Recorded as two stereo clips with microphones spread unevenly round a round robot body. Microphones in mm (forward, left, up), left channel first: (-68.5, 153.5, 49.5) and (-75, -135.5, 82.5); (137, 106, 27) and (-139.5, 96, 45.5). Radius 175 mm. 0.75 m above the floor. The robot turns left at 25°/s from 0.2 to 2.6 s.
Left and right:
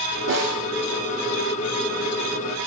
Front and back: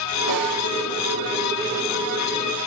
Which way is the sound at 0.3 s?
140° right.